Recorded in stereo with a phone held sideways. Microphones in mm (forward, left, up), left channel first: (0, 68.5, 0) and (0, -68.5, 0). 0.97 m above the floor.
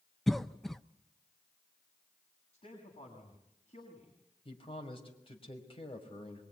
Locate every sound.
0.3 s a cough: centre (ahead or behind), 0.5 m
2.5 s a man speaking: 45° left (ahead or behind), 7 m
4.5 s a man speaking: 40° left (ahead or behind), 5 m